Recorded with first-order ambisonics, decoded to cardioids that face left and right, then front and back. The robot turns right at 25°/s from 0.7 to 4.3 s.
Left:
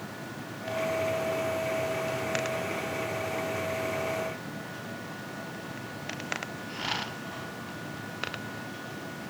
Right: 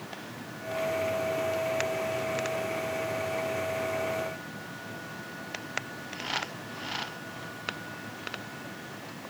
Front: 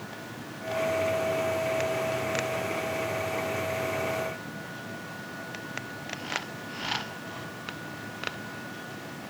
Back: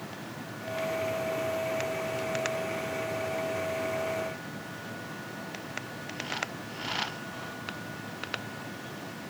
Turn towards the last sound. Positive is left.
No sound to turn to.